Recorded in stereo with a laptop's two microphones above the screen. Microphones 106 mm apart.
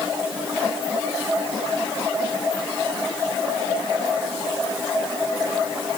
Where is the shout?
I don't hear a shout.